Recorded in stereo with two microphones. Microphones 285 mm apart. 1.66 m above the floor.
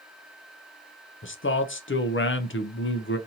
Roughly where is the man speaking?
Left.